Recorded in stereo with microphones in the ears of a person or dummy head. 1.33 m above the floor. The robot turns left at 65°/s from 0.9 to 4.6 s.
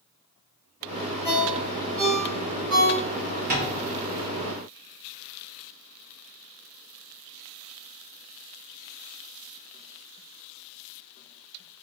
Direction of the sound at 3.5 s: 40° right (ahead or behind).